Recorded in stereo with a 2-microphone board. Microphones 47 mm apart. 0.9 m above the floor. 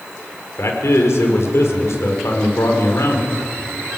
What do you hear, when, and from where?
0.6 s a man speaking: 75° left (ahead or behind), 3.5 m